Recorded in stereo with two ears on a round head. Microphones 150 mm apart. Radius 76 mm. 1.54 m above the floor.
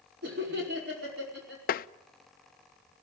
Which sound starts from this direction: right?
Laughter, at 0.2 s.